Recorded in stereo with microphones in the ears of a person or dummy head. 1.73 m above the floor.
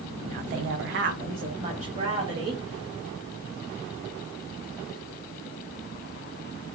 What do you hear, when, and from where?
0.2 s a woman speaking: 40° right (ahead or behind), 0.6 m; by 2.6 s 35° right (ahead or behind), 1.4 m